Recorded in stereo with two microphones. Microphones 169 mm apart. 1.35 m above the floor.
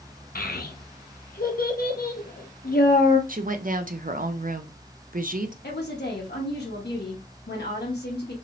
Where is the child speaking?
65° left (ahead or behind), 0.8 m.